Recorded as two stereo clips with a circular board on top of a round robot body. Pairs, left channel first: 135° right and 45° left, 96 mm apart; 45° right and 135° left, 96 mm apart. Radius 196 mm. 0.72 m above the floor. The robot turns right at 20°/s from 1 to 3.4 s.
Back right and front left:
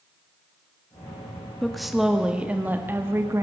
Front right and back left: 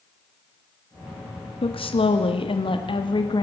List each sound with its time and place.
1.6 s a woman speaking: 50° right, 2 m; by 3.4 s 10° right, 2 m